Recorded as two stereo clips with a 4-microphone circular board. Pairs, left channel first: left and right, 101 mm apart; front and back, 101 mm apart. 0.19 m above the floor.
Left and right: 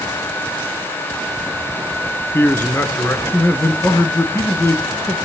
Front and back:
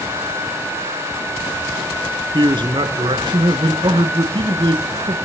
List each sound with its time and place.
2.3 s a man speaking: 155° left, 2 m